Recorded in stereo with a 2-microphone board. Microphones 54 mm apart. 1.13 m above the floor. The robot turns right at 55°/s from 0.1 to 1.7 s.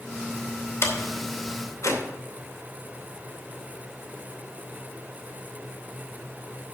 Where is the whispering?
I don't hear whispering.